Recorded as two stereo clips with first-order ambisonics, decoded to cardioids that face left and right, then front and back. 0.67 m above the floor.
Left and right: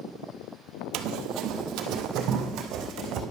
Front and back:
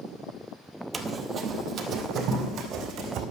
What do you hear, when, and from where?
0.9 s running footsteps: 105° right, 1.0 m; by 3.2 s 135° right, 2.5 m